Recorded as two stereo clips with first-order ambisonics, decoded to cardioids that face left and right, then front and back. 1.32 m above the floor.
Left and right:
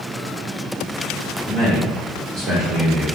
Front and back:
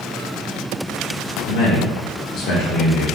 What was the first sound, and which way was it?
A man speaking, 10° left.